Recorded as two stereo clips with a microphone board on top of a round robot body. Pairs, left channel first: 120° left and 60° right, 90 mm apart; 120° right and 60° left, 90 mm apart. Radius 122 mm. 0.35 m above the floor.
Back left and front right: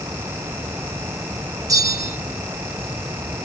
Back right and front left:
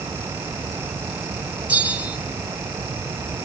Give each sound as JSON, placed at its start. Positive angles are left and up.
{"t": 1.7, "sound": "a bell", "azimuth_deg": -10, "distance_m": 2.5}